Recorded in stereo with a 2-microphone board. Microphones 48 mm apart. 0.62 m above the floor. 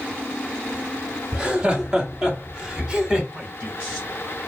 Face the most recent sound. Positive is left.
turn(degrees=-20)  # may be behind; listen again after turning